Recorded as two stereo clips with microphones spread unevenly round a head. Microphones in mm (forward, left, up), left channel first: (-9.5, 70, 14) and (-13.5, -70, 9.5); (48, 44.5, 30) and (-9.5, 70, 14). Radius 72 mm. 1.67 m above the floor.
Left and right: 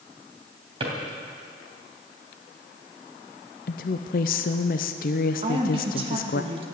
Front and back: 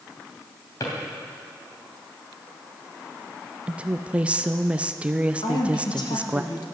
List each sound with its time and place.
0.8 s a drawer: 40° right, 2.5 m
3.7 s a woman speaking: 80° left, 0.5 m
5.4 s a woman speaking: 35° right, 1.7 m